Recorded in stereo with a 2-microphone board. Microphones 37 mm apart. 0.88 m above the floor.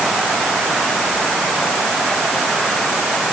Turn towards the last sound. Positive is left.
No sound to turn to.